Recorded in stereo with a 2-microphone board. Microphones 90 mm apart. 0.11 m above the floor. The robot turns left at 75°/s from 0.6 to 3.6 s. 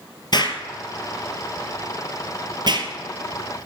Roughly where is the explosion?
Left.